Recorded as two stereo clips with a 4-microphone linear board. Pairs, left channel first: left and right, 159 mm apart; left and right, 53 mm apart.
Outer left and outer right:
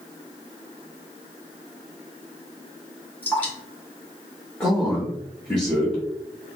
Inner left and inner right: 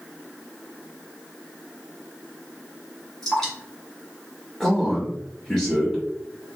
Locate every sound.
3.2 s dripping: 10° left (ahead or behind), 1.6 m
4.6 s a man speaking: 5° left (ahead or behind), 0.9 m